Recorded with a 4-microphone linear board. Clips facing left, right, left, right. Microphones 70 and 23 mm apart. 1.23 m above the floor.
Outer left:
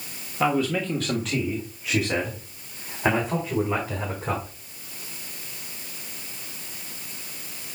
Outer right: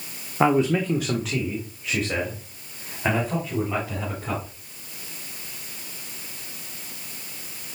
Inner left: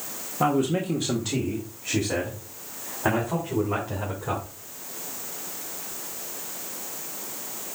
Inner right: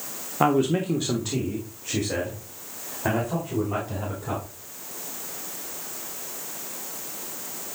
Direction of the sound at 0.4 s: 30° right (ahead or behind).